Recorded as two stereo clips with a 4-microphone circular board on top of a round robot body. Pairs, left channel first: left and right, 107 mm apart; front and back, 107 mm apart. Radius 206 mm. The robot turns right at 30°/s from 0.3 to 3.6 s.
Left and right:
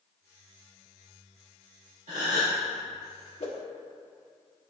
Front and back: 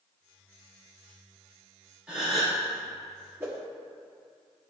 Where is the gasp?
100° right, 2.5 m; by 2.6 s 85° right, 2.5 m.